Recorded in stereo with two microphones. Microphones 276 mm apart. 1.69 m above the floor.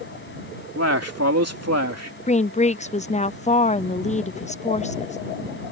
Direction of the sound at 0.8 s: 60° right (ahead or behind).